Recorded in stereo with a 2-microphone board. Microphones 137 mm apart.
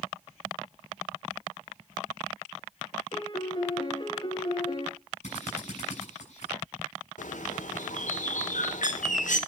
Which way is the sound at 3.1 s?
35° left (ahead or behind).